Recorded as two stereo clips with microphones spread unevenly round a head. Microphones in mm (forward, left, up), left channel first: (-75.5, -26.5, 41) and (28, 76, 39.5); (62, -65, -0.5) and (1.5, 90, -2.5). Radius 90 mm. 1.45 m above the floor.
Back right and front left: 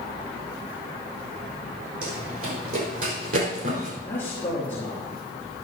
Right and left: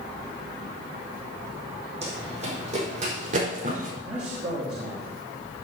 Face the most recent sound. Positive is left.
turn(degrees=150)